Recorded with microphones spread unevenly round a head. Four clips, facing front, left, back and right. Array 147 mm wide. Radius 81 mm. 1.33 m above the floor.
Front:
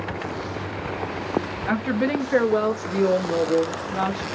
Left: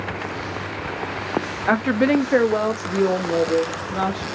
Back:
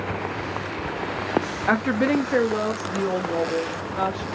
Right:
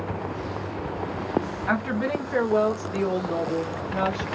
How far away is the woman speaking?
About 0.6 m.